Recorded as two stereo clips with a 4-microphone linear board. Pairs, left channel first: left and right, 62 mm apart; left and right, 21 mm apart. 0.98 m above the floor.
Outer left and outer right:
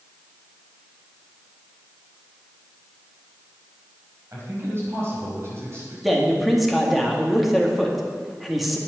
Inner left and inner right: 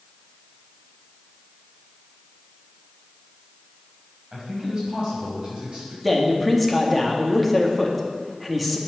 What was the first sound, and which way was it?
A man speaking, 40° right (ahead or behind).